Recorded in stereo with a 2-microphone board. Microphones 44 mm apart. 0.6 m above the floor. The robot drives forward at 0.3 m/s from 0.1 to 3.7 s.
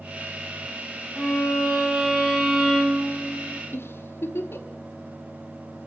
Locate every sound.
1.1 s a violin: 10° right (ahead or behind), 2.5 m; by 3.6 s 15° right (ahead or behind), 2.0 m
3.7 s a giggle: 65° left (ahead or behind), 2.0 m